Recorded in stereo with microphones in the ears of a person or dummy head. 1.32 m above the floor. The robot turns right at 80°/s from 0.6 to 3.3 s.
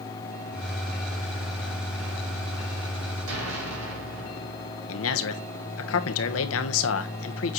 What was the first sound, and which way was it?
An explosion, 80° right.